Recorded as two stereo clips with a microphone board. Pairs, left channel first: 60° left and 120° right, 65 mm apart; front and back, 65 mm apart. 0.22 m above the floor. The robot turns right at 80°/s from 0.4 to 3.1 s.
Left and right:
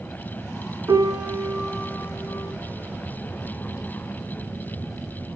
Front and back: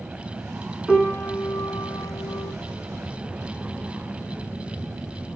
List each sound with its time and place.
0.9 s a piano: 85° right, 1.4 m; by 2.5 s 50° left, 1.4 m